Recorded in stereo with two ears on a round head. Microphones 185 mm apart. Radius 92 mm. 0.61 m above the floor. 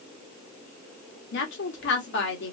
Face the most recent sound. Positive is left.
turn(degrees=60)  # may be behind; listen again after turning